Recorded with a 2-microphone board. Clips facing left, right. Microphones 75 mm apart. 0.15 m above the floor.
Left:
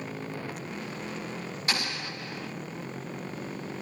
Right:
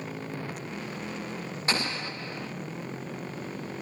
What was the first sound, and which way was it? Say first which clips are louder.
An explosion: right 3 dB; 35° right (ahead or behind).